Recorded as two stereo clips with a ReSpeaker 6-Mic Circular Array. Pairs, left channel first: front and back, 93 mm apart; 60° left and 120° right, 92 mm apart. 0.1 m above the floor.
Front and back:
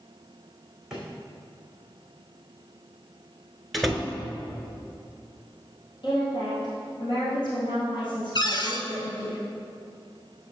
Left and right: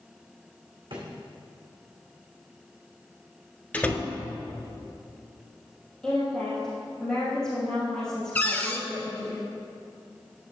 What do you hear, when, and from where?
0.9 s a drawer: 95° right, 2.5 m
3.7 s a door slam: 90° left, 0.8 m
6.0 s a woman speaking: 20° right, 3 m
8.3 s a cupboard door: 5° right, 0.7 m